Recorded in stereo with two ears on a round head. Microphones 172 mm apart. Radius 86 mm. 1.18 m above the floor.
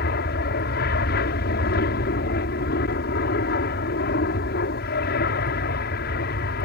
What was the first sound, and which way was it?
An aircraft, 55° left (ahead or behind).